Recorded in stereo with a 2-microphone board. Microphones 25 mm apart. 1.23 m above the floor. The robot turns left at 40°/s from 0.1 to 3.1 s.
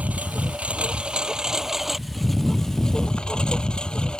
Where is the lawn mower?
95° right; by 4.2 s 145° left.